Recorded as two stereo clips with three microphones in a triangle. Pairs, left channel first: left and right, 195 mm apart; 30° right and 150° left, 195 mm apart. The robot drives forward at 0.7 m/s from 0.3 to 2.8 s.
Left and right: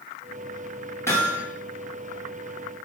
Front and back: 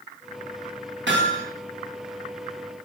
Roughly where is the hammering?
Behind.